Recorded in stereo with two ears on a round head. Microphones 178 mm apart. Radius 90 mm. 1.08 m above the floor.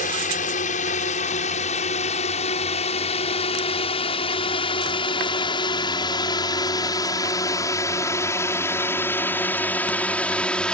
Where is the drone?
40° left (ahead or behind); by 10.7 s 5° left (ahead or behind).